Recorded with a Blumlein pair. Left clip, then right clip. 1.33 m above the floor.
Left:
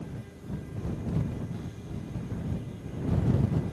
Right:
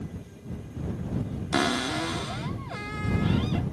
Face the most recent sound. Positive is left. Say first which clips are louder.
# right 18 dB
turn(degrees=-45)